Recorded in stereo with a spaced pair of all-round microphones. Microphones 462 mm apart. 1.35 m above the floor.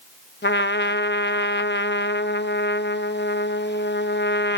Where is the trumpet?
25° left (ahead or behind), 0.7 m.